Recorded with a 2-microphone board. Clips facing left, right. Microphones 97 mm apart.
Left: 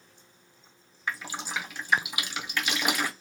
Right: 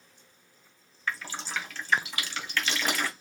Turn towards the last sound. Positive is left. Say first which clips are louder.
# left 1 dB
turn(degrees=15)  # may be behind; listen again after turning